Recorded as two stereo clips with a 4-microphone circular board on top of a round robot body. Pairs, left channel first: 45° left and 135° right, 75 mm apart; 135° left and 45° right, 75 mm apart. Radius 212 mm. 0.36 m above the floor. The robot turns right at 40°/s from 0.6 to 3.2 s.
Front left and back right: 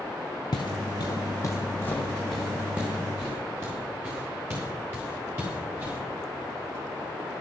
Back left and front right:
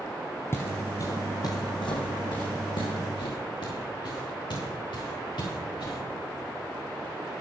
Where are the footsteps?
75° left, 0.5 m; by 6.0 s 160° left, 7 m.